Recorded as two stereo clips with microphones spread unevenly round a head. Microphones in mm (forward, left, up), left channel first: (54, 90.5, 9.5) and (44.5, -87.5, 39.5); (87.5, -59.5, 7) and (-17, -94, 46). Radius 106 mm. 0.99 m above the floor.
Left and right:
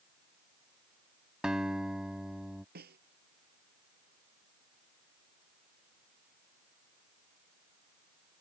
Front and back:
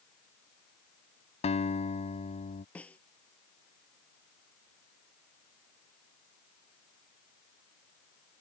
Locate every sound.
1.4 s a guitar: 10° right
2.8 s a snare drum: 65° right